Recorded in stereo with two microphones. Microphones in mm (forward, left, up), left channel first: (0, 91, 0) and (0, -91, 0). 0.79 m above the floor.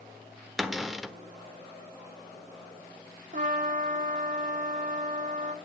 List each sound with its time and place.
0.6 s a cupboard door: centre (ahead or behind), 1.1 m
3.3 s a trumpet: 45° right (ahead or behind), 1.9 m